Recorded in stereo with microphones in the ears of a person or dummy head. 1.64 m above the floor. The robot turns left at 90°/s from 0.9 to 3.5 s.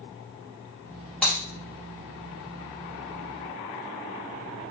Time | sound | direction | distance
1.2 | breaking glass | 5° left (ahead or behind) | 1.7 m